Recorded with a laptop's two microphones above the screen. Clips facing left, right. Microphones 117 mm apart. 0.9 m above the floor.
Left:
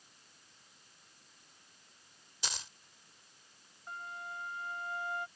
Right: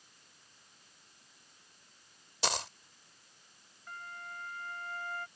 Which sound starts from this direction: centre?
A flute, at 3.9 s.